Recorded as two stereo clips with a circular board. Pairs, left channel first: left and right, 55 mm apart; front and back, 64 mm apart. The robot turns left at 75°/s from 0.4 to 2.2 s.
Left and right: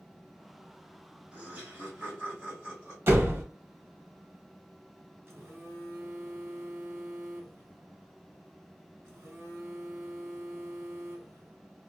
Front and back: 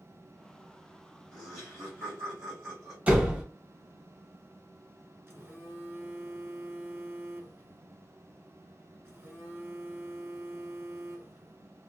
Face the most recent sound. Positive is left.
turn(degrees=-130)